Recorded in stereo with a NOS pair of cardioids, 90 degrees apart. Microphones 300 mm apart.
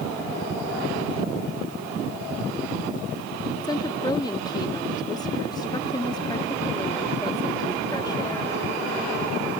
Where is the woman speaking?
15° left.